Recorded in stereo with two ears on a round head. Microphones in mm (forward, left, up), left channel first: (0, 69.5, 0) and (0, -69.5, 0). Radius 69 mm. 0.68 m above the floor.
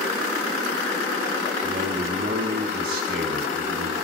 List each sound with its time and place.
1.6 s a man speaking: 65° right (ahead or behind), 5 m